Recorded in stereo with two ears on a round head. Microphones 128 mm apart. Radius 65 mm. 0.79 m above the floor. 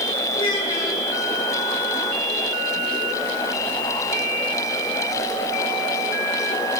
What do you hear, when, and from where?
0.3 s a child speaking: 40° left (ahead or behind), 8 m